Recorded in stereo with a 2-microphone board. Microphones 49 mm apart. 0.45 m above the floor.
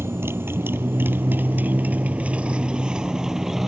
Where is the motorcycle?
65° right (ahead or behind); by 3.7 s 5° right (ahead or behind).